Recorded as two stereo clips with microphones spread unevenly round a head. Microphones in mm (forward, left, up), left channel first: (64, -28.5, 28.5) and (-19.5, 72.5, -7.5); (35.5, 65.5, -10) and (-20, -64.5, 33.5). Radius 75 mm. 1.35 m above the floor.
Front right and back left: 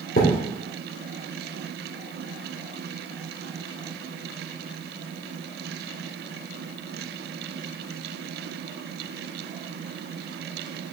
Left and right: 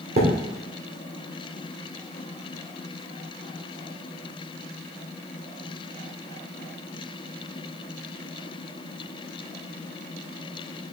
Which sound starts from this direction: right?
A thud, at 0.2 s.